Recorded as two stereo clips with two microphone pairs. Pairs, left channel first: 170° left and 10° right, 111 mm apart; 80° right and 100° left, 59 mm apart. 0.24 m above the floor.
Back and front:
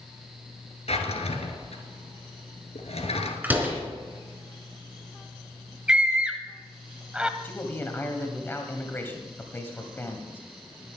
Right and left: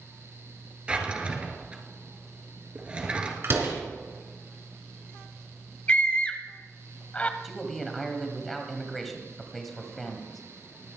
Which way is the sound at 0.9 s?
170° left.